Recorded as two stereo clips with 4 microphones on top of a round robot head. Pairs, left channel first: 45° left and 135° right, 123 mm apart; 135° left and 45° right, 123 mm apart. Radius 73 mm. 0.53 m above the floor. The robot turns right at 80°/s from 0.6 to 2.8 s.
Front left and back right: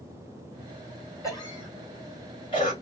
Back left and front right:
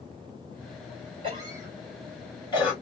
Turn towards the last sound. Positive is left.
turn(degrees=110)